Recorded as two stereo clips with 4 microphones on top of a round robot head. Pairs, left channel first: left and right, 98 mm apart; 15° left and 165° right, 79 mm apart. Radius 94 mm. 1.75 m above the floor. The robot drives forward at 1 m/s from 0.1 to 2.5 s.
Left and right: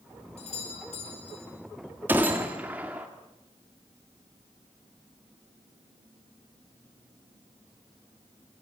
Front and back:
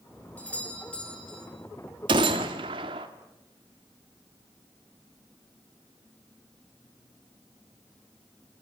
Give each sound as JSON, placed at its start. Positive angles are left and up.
{"t": 0.4, "sound": "a doorbell", "azimuth_deg": 85, "distance_m": 7.0}
{"t": 2.1, "sound": "a gunshot", "azimuth_deg": -165, "distance_m": 1.6}